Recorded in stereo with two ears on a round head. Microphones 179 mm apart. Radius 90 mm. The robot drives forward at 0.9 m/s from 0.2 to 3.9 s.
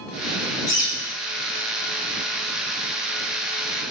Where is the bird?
20° left (ahead or behind), 5.5 m.